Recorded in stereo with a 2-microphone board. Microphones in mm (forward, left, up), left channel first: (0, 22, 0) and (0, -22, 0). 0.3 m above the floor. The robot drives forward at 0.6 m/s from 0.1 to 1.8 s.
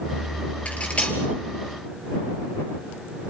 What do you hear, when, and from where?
0.7 s cutlery clinking: 30° left (ahead or behind), 3 m